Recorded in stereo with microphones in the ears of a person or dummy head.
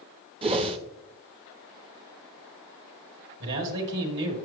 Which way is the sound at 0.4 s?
30° right (ahead or behind).